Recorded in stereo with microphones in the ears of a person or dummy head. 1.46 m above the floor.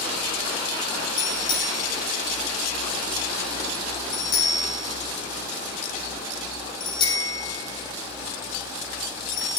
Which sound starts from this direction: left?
A bicycle bell, at 1.2 s.